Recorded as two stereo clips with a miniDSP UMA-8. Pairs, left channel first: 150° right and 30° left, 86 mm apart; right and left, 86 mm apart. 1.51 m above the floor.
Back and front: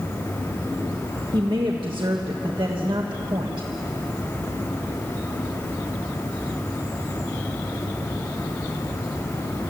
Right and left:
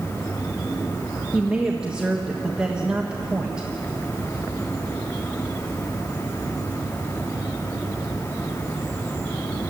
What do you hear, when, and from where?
1.3 s a woman speaking: 10° left, 1.6 m